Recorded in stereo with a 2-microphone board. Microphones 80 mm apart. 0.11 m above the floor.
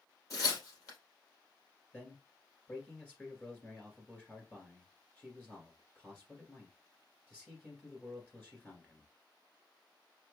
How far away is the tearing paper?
About 3 m.